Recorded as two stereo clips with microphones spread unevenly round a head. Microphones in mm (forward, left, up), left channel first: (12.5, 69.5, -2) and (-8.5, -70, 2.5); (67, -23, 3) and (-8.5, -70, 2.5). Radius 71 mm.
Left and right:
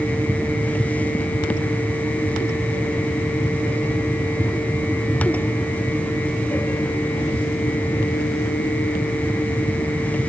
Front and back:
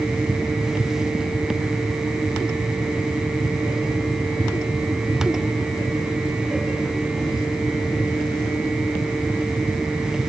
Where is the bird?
I don't hear a bird.